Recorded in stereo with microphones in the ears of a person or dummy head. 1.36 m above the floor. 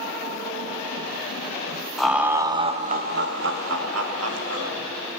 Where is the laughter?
Centre (ahead or behind), 0.8 m; by 4.7 s 80° right, 1.3 m.